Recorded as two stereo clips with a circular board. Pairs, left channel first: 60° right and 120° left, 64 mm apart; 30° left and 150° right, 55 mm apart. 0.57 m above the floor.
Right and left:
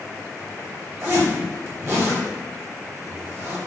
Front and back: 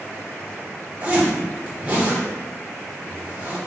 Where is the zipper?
150° left, 1.5 m.